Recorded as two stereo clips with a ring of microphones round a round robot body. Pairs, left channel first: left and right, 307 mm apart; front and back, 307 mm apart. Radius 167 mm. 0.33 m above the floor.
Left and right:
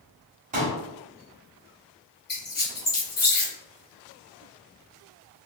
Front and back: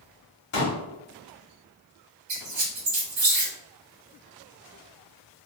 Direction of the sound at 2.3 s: 145° left.